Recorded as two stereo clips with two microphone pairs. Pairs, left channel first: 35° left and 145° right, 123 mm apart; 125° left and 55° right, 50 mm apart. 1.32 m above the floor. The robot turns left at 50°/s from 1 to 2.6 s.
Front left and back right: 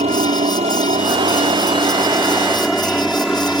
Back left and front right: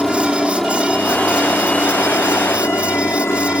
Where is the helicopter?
150° right; by 3.6 s 130° left.